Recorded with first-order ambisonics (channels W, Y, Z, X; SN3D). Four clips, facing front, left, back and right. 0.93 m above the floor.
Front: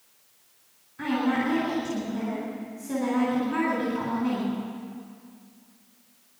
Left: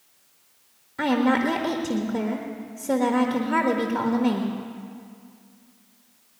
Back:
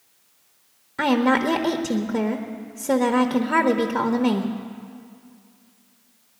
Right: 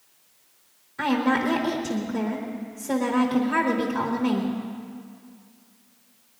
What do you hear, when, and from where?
1.0 s a woman speaking: 165° left, 1.1 m